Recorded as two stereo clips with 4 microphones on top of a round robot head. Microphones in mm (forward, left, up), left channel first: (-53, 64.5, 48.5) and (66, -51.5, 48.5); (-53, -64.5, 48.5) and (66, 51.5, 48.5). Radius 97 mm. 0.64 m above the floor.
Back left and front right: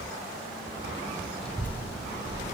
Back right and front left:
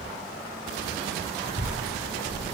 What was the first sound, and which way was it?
A child speaking, 140° right.